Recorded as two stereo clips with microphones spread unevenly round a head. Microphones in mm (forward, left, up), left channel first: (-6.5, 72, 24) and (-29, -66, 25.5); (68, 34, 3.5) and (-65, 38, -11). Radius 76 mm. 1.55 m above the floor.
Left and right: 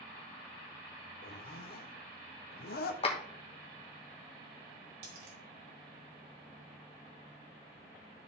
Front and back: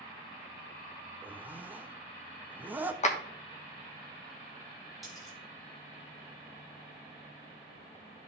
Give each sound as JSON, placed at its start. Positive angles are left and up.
{"t": 1.2, "sound": "a zipper", "azimuth_deg": 100, "distance_m": 0.8}
{"t": 3.0, "sound": "a clap", "azimuth_deg": 25, "distance_m": 1.3}
{"t": 5.0, "sound": "a dropped coin", "azimuth_deg": -90, "distance_m": 2.5}